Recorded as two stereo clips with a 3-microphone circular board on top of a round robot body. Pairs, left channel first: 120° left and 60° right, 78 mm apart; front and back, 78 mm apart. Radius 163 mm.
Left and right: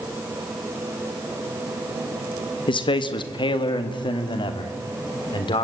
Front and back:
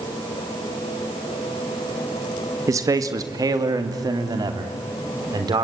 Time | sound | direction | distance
2.7 | a man speaking | 130° left | 1.6 m